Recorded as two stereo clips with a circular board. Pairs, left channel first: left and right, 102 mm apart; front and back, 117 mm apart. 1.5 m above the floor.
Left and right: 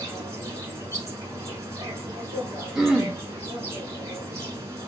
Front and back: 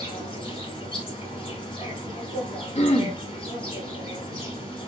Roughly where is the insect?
Ahead right.